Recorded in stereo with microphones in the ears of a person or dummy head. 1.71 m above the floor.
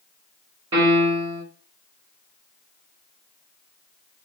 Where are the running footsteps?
No running footsteps in this recording.